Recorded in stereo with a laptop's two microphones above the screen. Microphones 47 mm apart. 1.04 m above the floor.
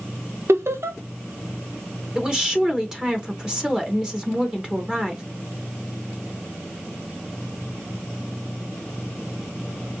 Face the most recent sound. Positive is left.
turn(degrees=-15)  # may be behind; listen again after turning